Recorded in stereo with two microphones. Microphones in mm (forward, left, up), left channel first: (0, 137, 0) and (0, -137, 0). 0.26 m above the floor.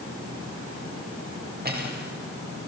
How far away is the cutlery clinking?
About 4.5 m.